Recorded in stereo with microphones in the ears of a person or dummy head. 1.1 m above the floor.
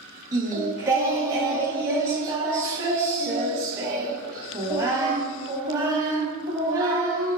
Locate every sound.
0.3 s singing: 20° right (ahead or behind), 0.8 m